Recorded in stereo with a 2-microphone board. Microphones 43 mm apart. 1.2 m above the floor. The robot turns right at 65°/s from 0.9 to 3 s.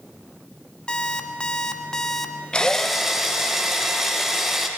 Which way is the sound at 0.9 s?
20° left (ahead or behind).